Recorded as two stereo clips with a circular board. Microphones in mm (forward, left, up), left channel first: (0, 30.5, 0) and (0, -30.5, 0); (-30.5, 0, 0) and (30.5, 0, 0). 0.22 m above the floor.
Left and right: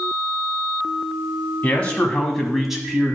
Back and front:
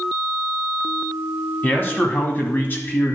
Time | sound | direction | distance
1.6 | a man speaking | 145° left | 1.6 m